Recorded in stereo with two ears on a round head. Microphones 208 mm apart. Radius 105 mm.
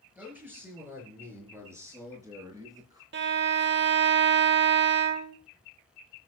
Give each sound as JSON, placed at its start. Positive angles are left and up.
{"t": 0.1, "sound": "a man speaking", "side_deg": -10, "distance_m": 6.5}
{"t": 3.1, "sound": "a violin", "side_deg": -50, "distance_m": 1.0}